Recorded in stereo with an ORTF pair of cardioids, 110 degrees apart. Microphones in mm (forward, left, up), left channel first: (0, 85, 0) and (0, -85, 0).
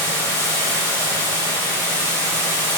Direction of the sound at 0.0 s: 20° left.